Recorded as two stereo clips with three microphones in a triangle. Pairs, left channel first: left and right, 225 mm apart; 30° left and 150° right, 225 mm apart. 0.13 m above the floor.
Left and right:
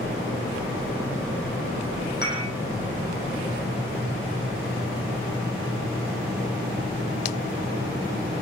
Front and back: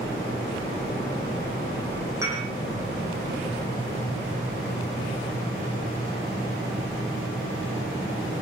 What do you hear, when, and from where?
2.2 s dishes clattering: 135° left, 4 m